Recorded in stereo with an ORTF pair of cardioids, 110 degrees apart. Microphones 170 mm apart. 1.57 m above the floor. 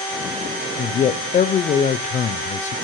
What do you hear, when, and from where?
0.8 s a man speaking: 45° left, 0.6 m